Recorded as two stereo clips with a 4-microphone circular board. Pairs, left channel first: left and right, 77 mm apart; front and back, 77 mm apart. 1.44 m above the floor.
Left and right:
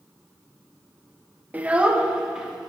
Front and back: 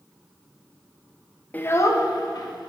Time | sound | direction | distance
1.5 | a child speaking | 40° right | 0.6 m